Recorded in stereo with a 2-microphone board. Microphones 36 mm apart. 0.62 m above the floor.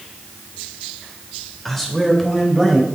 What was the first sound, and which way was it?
A man speaking, 10° left (ahead or behind).